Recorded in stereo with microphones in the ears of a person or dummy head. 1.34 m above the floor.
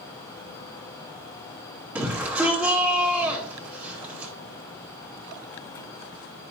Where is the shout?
5° right (ahead or behind), 1.0 m.